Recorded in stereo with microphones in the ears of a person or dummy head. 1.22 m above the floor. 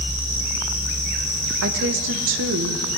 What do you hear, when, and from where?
1.6 s a woman speaking: 65° right (ahead or behind), 0.8 m